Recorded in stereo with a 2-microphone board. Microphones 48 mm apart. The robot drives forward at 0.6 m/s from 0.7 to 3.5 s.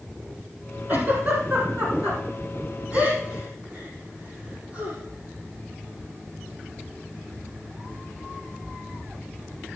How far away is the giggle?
About 5 m.